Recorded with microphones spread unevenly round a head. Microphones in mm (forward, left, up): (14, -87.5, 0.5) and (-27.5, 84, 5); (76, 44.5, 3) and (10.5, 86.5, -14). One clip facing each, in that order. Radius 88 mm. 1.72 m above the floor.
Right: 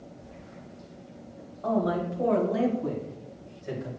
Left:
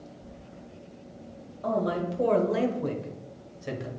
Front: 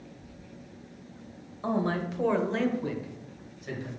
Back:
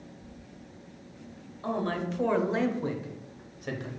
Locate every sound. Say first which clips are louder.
1.6 s a man speaking: right 1 dB, front 2 dB; 35° left, 1.2 m; by 3.9 s 120° left, 1.2 m